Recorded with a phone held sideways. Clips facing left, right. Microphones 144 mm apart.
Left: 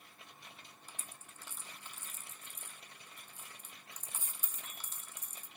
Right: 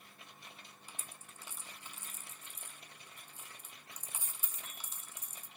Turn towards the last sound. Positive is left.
turn(degrees=-10)  # may be behind; listen again after turning